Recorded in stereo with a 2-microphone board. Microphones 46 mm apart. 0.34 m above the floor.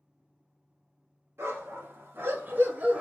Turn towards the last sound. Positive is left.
turn(degrees=-30)  # may be behind; listen again after turning